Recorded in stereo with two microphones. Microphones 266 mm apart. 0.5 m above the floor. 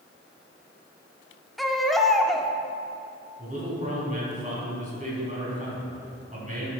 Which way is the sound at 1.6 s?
Centre (ahead or behind).